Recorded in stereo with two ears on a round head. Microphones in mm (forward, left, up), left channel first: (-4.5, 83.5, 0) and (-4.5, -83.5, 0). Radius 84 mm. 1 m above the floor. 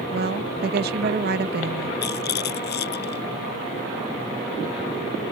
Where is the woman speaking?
55° right (ahead or behind).